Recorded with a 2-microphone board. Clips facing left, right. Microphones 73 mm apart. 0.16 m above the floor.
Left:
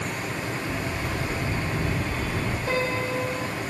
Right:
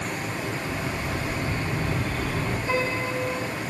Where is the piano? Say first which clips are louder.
Left 1 dB; 65° left (ahead or behind), 3.5 m.